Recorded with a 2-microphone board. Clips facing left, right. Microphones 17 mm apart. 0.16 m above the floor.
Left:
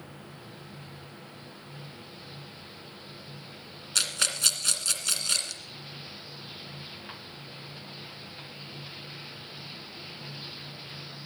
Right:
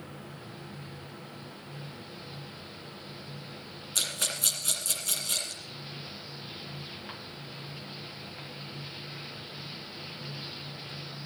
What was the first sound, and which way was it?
A rattle, 35° left (ahead or behind).